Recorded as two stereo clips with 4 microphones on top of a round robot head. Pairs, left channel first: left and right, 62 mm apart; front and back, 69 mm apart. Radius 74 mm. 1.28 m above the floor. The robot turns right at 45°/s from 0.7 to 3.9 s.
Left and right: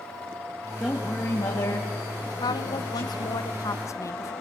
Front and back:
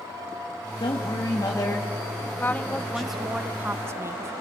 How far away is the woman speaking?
About 1.3 m.